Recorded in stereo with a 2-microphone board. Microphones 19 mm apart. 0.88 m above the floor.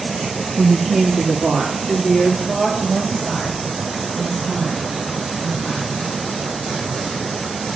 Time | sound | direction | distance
0.6 | a woman speaking | 35° right (ahead or behind) | 0.7 m